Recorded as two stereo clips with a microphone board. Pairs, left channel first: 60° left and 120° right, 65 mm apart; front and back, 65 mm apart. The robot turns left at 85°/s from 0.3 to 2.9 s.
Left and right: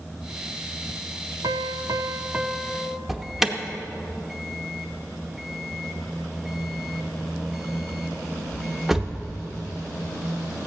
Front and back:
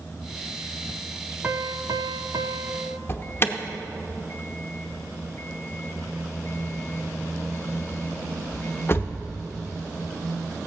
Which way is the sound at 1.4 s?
115° right.